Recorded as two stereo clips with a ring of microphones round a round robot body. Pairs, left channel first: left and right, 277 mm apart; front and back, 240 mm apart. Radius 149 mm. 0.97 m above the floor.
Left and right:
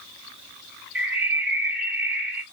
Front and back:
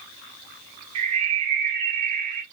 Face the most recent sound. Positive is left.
turn(degrees=-175)